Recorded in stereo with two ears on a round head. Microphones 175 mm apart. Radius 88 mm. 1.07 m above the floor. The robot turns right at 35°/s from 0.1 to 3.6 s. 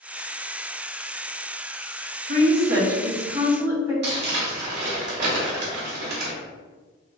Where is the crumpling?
55° right (ahead or behind), 2.0 m.